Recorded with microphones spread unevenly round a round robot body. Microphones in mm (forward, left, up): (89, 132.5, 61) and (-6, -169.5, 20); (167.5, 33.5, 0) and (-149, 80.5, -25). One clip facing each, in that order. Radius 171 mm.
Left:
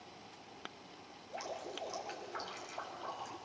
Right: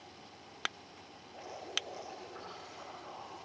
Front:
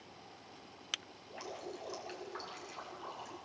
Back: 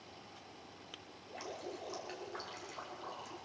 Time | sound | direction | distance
1.3 | dripping | 75° left | 5 m